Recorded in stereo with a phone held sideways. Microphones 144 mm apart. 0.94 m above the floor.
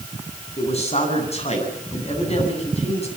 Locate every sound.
0.6 s a man speaking: 45° left (ahead or behind), 10 m